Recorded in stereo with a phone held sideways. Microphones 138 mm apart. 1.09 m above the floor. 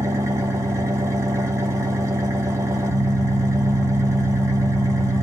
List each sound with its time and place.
0.0 s an engine running: 20° right (ahead or behind), 1.1 m